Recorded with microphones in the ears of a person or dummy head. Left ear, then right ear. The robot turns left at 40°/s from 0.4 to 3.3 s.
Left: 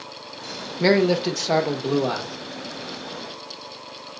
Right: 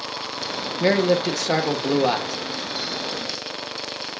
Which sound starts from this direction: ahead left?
A man speaking, at 0.8 s.